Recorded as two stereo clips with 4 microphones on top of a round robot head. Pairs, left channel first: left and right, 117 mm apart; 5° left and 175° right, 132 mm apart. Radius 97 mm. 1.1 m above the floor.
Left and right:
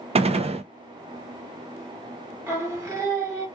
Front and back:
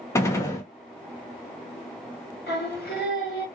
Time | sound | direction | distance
0.1 | a gunshot | 60° right | 0.7 m
2.5 | singing | 20° right | 1.6 m